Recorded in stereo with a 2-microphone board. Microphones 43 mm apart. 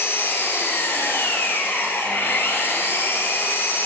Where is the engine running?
60° left (ahead or behind), 1.2 m.